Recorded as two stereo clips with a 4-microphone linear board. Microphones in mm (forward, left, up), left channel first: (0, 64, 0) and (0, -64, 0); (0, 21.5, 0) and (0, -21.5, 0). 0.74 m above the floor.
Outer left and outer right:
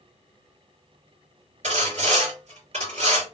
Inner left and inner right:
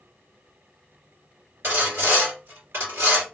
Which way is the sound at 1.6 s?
65° right (ahead or behind).